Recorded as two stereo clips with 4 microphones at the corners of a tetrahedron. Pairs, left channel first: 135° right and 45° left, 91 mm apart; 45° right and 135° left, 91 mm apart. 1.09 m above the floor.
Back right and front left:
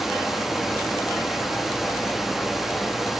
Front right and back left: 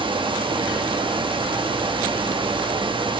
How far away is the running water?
About 0.8 m.